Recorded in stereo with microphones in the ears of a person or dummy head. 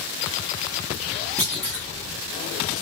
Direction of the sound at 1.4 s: 10° left (ahead or behind).